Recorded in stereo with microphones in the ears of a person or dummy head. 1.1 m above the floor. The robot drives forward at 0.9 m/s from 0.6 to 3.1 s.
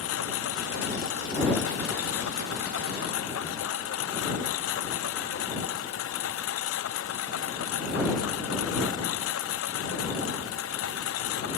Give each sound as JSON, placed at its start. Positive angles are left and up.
{"t": 0.0, "sound": "a lawn mower", "side_deg": 90}